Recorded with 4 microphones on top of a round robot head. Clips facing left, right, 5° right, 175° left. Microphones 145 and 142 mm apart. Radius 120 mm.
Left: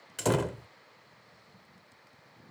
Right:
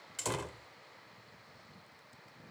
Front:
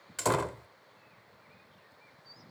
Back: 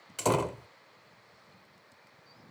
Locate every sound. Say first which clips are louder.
0.2 s a door slam: left 11 dB, back 2 dB; 100° left